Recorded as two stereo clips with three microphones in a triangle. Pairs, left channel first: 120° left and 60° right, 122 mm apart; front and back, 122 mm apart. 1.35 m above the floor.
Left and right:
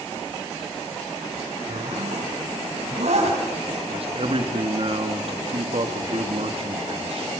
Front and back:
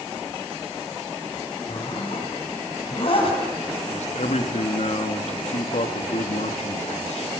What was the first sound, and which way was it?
A zipper, 40° right.